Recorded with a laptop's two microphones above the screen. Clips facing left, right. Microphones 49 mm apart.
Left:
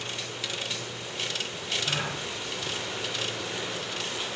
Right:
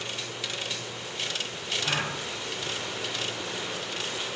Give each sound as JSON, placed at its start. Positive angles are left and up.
{"t": 1.8, "sound": "a gasp", "side_deg": -45, "distance_m": 5.0}